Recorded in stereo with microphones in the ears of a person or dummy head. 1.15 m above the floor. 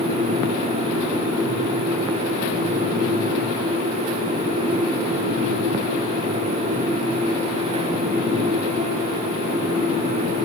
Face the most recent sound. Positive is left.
No sound to turn to.